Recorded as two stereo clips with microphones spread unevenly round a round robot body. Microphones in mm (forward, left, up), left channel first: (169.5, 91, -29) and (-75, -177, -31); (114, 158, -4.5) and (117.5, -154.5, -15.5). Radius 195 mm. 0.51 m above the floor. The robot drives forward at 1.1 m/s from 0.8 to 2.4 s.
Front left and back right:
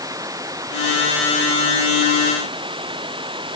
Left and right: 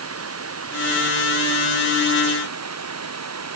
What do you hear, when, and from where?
0.0 s running water: 50° right; by 3.6 s 55° right